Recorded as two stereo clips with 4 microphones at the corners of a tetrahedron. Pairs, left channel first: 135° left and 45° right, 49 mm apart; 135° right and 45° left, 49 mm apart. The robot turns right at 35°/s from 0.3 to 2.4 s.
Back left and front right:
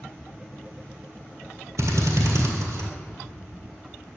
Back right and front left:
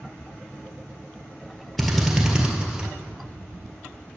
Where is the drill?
45° right, 1.6 m; by 2.9 s 25° right, 1.6 m.